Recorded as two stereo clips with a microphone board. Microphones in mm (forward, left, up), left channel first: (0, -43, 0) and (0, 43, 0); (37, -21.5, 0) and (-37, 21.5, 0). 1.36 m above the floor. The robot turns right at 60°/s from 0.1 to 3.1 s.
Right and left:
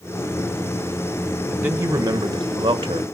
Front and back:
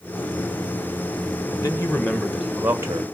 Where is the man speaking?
10° left, 1.5 m; by 3.0 s 105° left, 1.5 m.